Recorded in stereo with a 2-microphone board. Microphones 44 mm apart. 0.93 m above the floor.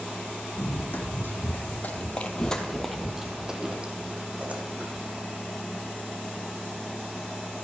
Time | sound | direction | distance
0.6 | running footsteps | 55° left (ahead or behind) | 1.9 m